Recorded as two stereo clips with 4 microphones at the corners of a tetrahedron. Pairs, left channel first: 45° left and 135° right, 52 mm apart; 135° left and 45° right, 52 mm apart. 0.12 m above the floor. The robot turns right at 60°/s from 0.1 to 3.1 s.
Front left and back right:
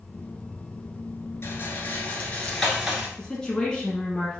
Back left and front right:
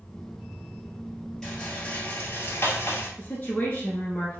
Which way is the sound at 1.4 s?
55° left.